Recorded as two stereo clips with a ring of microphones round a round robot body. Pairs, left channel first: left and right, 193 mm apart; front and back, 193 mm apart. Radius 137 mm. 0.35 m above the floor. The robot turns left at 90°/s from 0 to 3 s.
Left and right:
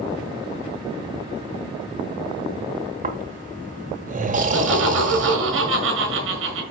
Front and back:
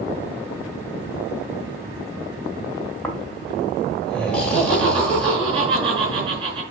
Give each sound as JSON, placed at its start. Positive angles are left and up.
{"t": 3.0, "sound": "snoring", "azimuth_deg": -85, "distance_m": 1.5}
{"t": 4.4, "sound": "laughter", "azimuth_deg": -110, "distance_m": 4.5}